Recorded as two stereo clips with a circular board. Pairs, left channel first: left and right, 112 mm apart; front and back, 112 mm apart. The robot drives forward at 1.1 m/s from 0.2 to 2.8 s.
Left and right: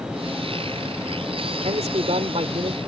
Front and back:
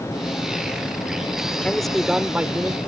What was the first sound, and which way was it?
A man speaking, 80° right.